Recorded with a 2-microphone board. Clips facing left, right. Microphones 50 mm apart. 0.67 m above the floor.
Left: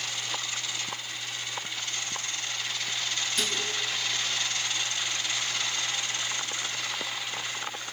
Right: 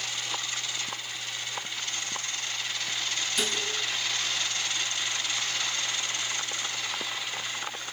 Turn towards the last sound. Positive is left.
turn(degrees=0)  # may be behind; listen again after turning